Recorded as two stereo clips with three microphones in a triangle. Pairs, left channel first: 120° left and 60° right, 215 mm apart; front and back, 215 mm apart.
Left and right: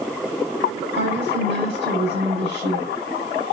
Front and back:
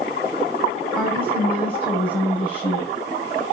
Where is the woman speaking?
100° right, 5.5 m.